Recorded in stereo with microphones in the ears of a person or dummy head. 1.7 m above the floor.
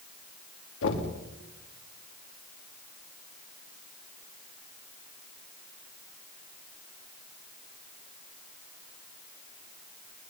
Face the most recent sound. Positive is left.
turn(degrees=75)  # may be behind; listen again after turning